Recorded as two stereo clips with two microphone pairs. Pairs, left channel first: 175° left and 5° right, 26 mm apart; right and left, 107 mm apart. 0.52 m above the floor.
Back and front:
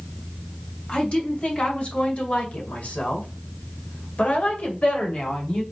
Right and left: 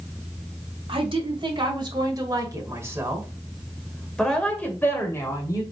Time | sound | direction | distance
0.9 | a woman speaking | 125° left | 2.5 m